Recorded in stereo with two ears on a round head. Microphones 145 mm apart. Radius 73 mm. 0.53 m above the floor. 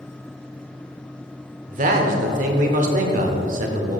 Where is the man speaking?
50° right (ahead or behind), 1.2 m.